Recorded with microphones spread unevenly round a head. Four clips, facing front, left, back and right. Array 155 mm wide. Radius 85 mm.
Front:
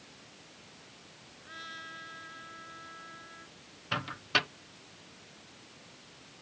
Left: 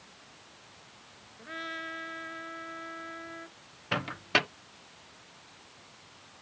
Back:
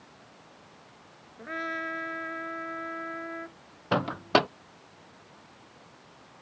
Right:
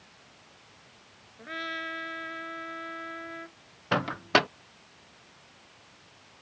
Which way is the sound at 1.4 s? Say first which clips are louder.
Right 3 dB, back 13 dB; 170° right.